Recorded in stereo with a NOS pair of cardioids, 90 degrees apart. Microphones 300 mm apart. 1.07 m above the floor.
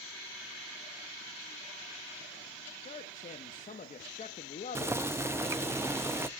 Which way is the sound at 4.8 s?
10° right.